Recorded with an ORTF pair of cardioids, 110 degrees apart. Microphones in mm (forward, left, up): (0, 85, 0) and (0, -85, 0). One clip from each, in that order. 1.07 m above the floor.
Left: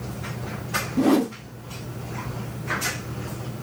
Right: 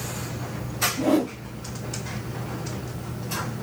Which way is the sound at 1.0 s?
50° left.